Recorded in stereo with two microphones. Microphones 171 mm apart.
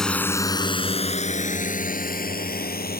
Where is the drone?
5° left (ahead or behind); by 3.0 s 65° left (ahead or behind).